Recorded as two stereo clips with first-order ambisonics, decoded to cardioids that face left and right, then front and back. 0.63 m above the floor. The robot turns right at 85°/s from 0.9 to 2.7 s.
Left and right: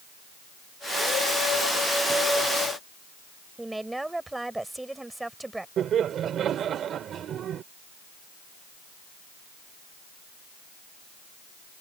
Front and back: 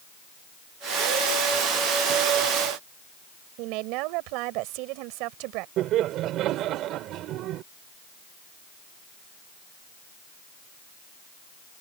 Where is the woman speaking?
175° right.